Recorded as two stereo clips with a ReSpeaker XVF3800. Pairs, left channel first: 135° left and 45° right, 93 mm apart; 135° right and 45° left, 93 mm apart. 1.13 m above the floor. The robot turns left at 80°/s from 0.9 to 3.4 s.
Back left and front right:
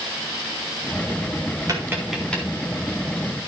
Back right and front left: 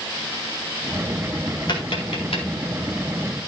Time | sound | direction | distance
1.7 | tapping | 95° right | 4 m